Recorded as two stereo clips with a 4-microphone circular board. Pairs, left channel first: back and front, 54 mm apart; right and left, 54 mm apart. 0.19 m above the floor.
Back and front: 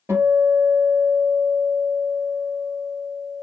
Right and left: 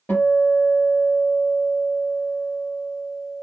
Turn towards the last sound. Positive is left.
turn(degrees=-40)